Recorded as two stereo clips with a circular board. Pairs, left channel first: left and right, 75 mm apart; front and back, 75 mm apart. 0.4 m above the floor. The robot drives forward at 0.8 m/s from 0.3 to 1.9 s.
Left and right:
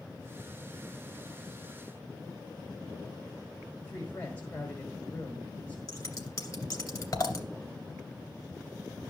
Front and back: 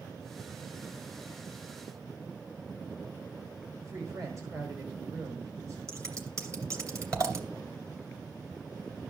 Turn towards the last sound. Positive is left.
turn(degrees=135)